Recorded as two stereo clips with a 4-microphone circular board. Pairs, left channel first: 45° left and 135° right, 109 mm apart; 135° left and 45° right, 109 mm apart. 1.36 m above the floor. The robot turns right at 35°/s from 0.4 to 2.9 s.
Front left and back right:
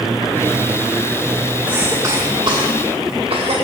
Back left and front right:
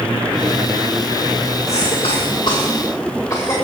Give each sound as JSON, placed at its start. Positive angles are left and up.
{"t": 1.7, "sound": "a cough", "azimuth_deg": 150, "distance_m": 1.9}